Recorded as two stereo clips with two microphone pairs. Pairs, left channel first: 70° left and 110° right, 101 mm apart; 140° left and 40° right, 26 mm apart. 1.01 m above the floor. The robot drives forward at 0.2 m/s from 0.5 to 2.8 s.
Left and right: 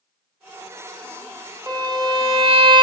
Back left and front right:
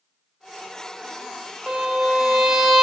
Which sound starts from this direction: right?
A violin, at 1.7 s.